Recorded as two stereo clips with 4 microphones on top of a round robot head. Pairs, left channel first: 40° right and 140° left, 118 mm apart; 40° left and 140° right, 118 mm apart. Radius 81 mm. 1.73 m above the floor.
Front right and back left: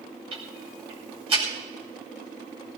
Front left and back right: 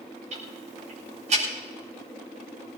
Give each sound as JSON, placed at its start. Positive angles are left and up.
{"t": 0.3, "sound": "ticking", "azimuth_deg": -170, "distance_m": 7.5}